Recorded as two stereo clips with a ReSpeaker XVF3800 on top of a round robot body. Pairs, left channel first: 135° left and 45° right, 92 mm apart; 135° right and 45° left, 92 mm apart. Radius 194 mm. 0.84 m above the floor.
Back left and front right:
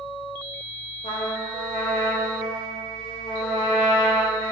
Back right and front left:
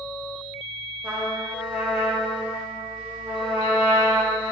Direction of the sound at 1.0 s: 125° left.